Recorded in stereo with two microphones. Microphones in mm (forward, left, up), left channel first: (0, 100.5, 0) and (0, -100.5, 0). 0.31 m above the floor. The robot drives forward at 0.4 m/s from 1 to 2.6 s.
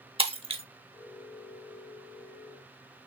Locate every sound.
0.2 s breaking glass: 30° right (ahead or behind), 0.9 m